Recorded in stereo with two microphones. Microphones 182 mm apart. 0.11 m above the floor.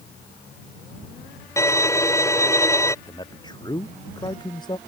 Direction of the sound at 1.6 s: 15° left (ahead or behind).